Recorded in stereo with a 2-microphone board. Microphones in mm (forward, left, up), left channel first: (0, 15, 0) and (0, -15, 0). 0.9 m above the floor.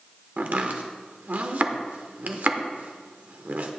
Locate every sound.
0.4 s chopping: 65° right (ahead or behind), 0.8 m